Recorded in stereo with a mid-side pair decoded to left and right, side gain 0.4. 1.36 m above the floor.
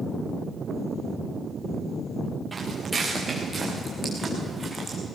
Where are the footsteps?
25° right, 8 m; by 5.0 s 30° right, 6.5 m.